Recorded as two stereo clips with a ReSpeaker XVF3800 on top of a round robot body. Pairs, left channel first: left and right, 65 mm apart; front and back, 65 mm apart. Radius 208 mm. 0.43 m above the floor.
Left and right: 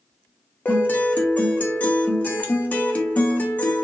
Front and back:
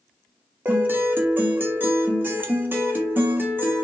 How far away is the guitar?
About 1.4 m.